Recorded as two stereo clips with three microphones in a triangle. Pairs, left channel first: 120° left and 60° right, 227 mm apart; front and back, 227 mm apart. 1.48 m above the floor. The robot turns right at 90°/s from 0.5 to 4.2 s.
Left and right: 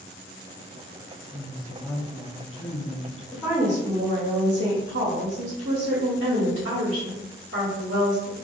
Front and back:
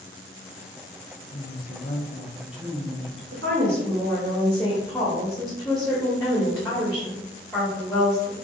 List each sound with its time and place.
1.3 s a woman speaking: 15° right, 0.7 m; by 3.2 s 155° left, 0.7 m
3.3 s a woman speaking: 170° right, 1.2 m; by 8.4 s 90° right, 1.2 m